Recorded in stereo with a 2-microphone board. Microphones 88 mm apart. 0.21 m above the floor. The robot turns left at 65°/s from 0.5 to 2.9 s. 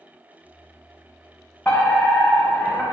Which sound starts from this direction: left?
A fire alarm, at 1.6 s.